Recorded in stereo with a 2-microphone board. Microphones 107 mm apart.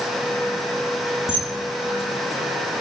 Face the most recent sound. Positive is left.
turn(degrees=65)  # may be behind; listen again after turning